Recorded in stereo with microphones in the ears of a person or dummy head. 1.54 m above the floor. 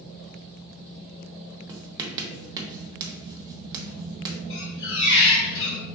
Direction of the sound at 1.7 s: 25° right (ahead or behind).